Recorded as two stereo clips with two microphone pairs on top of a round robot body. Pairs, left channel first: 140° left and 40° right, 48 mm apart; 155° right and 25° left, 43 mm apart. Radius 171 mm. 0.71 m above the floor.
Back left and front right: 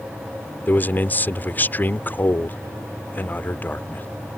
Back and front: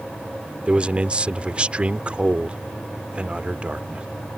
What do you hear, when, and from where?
0.7 s a man speaking: 90° left